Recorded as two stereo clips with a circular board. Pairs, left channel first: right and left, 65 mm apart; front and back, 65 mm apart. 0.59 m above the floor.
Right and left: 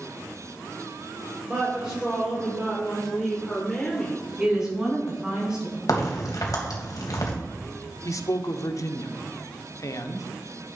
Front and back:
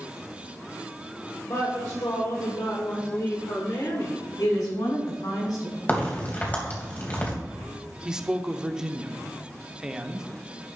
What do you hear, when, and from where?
1.4 s a woman speaking: 20° left, 3 m; by 4.3 s 25° right, 2 m
4.4 s a woman speaking: 10° left, 5 m
5.9 s a crack: 65° right, 3 m
8.1 s a man speaking: 105° right, 1.0 m